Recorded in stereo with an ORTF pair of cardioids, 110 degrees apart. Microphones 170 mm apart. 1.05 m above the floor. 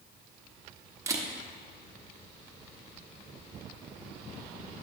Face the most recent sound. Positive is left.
turn(degrees=-20)